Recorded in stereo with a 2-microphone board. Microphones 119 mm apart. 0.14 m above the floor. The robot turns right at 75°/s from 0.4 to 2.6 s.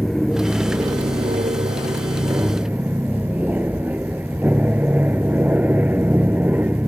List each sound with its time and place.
0.0 s an aircraft: straight behind; by 6.9 s 15° right